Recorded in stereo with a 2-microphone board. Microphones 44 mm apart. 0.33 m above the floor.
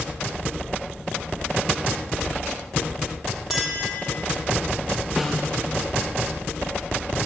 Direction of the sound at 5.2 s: 10° right (ahead or behind).